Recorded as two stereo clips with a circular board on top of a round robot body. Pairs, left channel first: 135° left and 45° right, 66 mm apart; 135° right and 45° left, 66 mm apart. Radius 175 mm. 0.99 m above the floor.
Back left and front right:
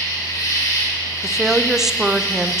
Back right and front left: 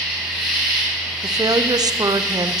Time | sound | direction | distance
0.0 | an insect | 145° left | 4.5 m
1.2 | a woman speaking | 40° left | 0.6 m